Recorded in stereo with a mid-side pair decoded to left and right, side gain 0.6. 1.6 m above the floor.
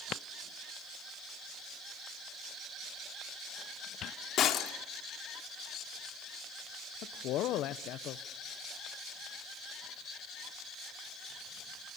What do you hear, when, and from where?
4.4 s breaking glass: 50° left, 3 m
7.0 s a man speaking: 60° left, 1.0 m